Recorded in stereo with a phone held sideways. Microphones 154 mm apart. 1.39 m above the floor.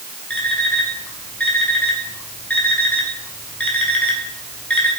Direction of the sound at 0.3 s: 10° left (ahead or behind).